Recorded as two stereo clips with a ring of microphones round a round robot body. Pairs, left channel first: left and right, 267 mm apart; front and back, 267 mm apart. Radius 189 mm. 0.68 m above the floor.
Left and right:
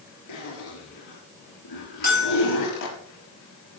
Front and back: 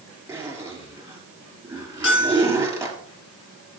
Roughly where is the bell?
Ahead left.